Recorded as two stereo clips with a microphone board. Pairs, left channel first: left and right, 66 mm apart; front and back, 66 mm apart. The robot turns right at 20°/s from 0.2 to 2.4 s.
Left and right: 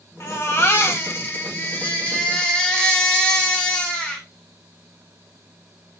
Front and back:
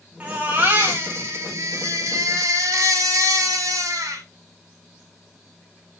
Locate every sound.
0.2 s a baby crying: 120° left, 2 m; by 4.2 s 165° left, 2 m